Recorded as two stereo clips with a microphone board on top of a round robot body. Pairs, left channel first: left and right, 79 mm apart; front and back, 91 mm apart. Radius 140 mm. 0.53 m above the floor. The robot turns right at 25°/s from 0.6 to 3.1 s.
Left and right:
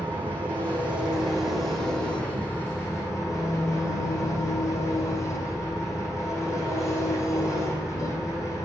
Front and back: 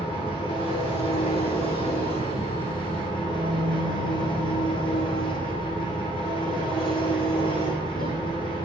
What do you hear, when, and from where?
0.0 s an engine running: 25° right, 7.5 m; by 8.7 s 35° left, 7.5 m